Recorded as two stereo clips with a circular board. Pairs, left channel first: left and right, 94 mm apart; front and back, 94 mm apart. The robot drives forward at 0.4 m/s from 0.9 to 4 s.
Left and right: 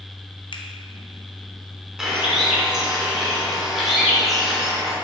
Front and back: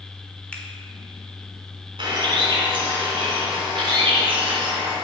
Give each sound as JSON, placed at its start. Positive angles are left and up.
{"t": 0.5, "sound": "a finger snap", "azimuth_deg": 75, "distance_m": 0.7}
{"t": 2.0, "sound": "a bird", "azimuth_deg": -170, "distance_m": 1.7}